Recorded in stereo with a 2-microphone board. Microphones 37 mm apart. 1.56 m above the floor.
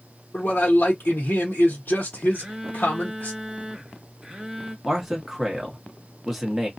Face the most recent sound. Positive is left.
turn(degrees=-5)  # may be behind; listen again after turning